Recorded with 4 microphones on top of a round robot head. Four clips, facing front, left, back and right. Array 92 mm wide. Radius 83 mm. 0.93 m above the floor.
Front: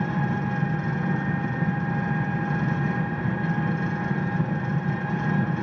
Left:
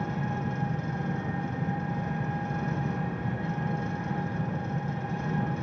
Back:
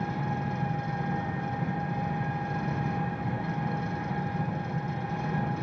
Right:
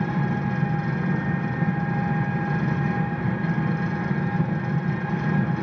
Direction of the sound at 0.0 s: 35° right.